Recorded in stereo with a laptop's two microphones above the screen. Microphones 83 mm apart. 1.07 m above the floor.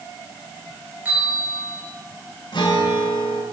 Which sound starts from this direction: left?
A guitar, at 2.5 s.